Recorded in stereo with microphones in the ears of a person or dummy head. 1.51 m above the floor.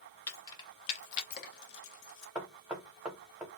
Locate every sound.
0.3 s keys jangling: 10° left (ahead or behind), 0.9 m; by 2.2 s 70° left (ahead or behind), 1.2 m
2.4 s knocking: 5° right (ahead or behind), 0.8 m